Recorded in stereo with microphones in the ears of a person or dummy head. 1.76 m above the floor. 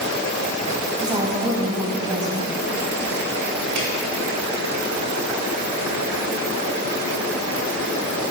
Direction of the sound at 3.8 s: 60° right (ahead or behind).